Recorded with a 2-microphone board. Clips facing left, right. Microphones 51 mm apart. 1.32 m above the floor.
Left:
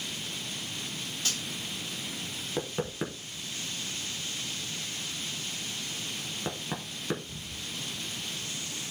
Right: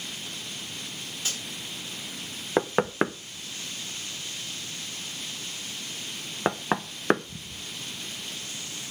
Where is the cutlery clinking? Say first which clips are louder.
Even; 10° right (ahead or behind), 5.5 m.